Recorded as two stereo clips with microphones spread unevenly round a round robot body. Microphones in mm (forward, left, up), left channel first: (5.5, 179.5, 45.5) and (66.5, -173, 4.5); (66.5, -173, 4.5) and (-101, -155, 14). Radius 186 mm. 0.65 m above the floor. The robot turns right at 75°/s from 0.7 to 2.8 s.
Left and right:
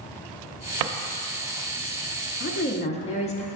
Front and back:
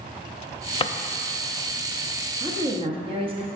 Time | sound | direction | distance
0.8 | a drawer | 70° right | 0.5 m
2.4 | a woman speaking | 135° left | 0.5 m